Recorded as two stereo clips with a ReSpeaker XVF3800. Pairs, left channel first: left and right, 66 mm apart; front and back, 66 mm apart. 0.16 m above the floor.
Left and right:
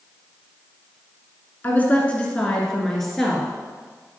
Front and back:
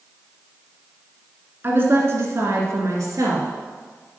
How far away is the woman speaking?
About 1.4 m.